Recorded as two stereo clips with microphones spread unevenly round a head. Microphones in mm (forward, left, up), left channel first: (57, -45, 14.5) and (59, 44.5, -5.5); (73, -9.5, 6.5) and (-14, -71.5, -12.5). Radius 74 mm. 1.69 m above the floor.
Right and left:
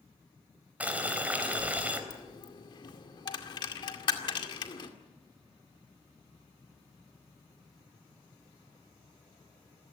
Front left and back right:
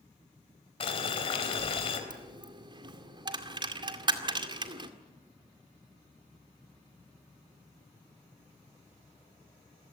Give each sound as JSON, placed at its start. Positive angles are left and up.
{"t": 0.8, "sound": "boiling", "azimuth_deg": 10, "distance_m": 4.0}
{"t": 2.1, "sound": "a dropped coin", "azimuth_deg": -100, "distance_m": 2.0}